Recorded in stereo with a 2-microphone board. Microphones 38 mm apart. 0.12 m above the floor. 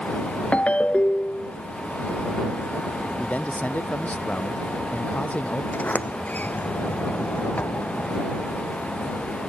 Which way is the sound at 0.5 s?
35° left (ahead or behind).